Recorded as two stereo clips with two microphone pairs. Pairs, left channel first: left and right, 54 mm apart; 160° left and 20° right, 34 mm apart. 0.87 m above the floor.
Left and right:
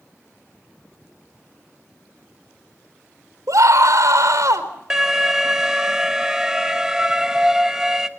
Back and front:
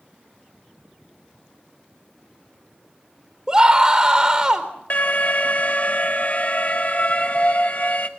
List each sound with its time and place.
3.5 s a scream: 85° right, 4 m
4.9 s an alarm: 170° right, 1.4 m